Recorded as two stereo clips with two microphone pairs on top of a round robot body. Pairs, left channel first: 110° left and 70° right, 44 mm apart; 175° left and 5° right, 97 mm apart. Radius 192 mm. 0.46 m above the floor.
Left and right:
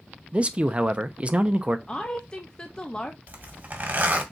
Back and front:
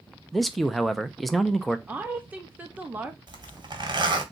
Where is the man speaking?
95° right, 0.7 m.